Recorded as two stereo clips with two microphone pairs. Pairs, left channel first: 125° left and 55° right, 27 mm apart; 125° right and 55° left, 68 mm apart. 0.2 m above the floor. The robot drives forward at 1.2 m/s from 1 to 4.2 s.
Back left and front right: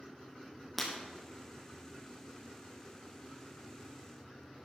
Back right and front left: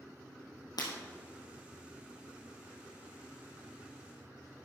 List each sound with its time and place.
0.8 s breaking glass: 145° right, 3 m